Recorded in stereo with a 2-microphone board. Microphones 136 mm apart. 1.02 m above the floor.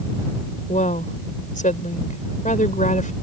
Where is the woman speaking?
70° left (ahead or behind).